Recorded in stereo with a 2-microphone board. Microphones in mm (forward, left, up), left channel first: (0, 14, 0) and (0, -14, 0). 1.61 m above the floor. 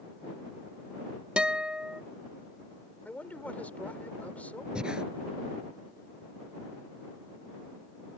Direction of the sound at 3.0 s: 65° left (ahead or behind).